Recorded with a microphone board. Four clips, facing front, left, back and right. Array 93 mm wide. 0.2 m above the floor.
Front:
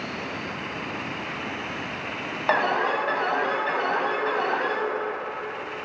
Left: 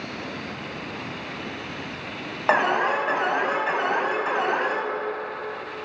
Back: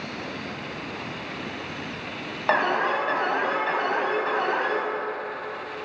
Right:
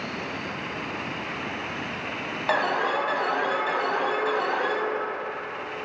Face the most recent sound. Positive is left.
turn(degrees=90)